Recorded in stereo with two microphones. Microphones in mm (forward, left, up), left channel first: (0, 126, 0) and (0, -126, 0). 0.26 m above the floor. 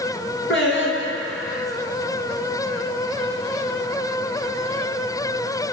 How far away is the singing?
About 1.6 m.